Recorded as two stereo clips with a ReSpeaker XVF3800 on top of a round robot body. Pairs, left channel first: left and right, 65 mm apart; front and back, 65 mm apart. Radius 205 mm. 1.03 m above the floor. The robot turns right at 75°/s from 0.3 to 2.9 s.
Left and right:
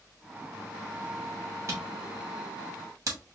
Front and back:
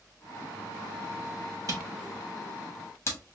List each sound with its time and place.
1.7 s a camera shutter: 140° right, 1.5 m; by 3.2 s 45° right, 1.5 m